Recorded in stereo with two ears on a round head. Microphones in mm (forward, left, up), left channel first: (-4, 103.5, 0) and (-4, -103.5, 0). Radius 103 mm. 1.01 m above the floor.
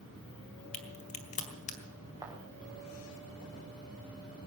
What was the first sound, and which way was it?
A crack, 30° left (ahead or behind).